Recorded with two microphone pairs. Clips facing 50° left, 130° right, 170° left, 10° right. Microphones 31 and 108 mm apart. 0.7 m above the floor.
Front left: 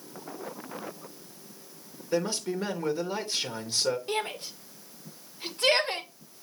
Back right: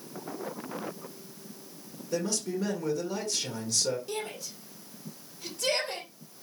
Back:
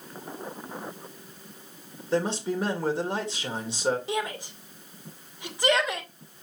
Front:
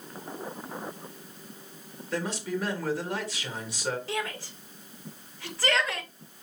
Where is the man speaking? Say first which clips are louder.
Front left 2 dB, back 5 dB; 105° left, 2 m.